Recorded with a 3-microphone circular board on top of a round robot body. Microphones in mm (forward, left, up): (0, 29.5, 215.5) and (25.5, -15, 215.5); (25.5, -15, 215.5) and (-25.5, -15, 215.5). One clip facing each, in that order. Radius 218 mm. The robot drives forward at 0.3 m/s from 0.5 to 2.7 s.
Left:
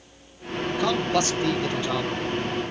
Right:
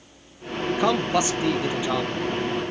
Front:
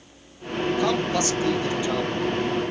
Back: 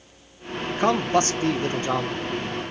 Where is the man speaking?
130° right, 1.4 m; by 2.2 s 140° right, 1.7 m.